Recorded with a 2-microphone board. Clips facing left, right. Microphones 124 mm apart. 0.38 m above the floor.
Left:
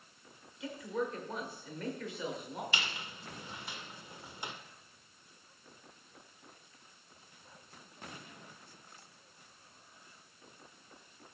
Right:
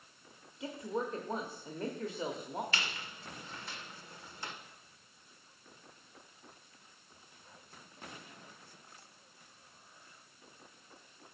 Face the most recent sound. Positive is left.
turn(degrees=15)  # may be behind; listen again after turning